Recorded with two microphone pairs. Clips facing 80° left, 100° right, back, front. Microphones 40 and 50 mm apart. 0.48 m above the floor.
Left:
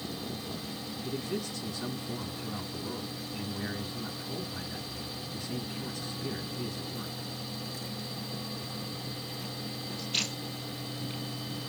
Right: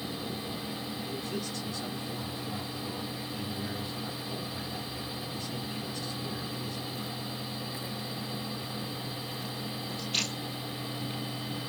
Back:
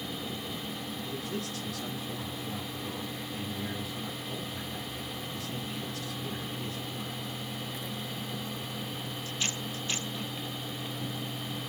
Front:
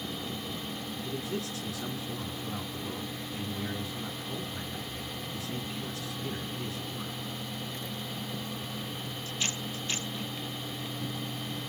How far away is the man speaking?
About 3.5 m.